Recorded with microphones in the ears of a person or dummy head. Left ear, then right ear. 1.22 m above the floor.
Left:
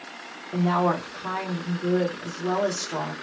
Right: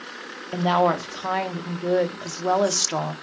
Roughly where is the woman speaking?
Right.